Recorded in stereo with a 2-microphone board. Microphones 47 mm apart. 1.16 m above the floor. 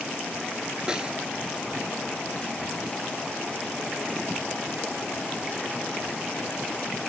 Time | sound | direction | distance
0.9 | a snare drum | 20° right (ahead or behind) | ?